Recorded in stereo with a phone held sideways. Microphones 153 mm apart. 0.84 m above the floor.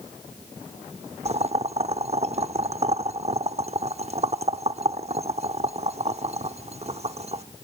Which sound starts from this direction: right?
Boiling, at 1.2 s.